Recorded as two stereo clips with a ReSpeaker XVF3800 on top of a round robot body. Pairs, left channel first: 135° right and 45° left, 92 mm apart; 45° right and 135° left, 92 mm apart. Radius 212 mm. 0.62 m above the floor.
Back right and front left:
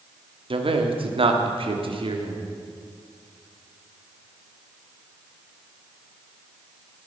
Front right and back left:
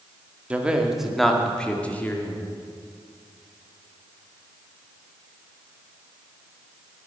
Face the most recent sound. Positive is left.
turn(degrees=20)